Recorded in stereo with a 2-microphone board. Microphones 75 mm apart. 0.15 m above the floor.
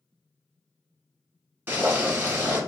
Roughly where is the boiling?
Right.